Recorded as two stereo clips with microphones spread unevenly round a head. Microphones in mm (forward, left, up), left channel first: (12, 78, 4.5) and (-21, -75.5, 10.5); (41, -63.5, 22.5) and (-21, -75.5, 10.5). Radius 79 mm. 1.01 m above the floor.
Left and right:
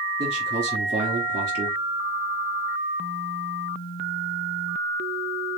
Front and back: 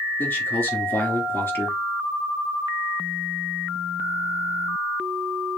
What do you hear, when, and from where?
0.2 s a man speaking: 40° right, 2.5 m